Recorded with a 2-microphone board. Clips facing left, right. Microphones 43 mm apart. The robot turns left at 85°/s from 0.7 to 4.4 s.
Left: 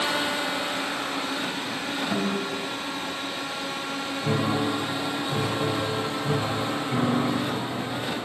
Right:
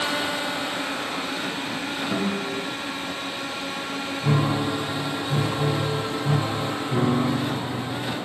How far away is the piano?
About 1.6 m.